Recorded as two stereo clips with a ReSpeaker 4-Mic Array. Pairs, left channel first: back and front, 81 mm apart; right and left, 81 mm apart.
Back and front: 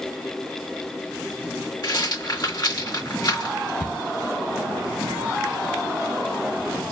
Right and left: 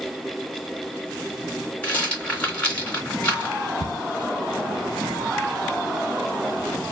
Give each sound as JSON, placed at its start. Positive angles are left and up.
{"t": 1.8, "sound": "a rattle", "azimuth_deg": -160, "distance_m": 2.5}
{"t": 3.8, "sound": "a cupboard door", "azimuth_deg": 80, "distance_m": 1.3}